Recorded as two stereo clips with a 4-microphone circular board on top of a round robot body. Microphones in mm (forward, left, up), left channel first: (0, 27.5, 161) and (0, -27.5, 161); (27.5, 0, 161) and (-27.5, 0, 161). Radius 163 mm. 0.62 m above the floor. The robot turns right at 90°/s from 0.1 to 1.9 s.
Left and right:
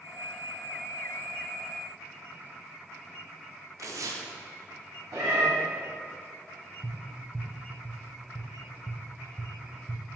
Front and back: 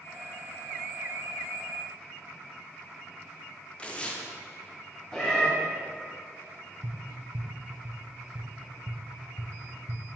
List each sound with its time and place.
3.8 s tearing paper: 70° right, 0.7 m
5.1 s a cat meowing: 80° right, 1.7 m
6.8 s tapping: 165° right, 0.6 m